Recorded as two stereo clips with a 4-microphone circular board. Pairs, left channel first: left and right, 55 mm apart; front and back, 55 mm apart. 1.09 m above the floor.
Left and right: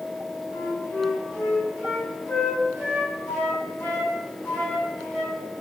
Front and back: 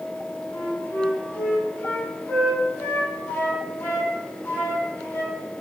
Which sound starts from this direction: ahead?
A flute, at 0.5 s.